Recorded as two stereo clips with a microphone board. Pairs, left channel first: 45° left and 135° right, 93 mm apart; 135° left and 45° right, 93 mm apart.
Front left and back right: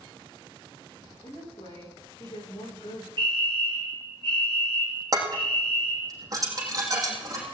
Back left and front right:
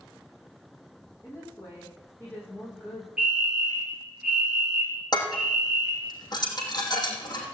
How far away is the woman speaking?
About 8.5 m.